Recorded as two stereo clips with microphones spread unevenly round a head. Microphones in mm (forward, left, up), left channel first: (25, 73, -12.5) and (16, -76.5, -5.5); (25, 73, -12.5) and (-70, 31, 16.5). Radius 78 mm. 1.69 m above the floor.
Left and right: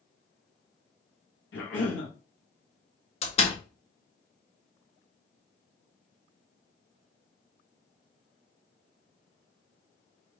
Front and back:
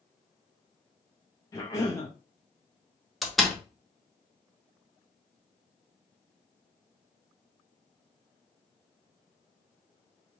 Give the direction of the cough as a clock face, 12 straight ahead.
9 o'clock.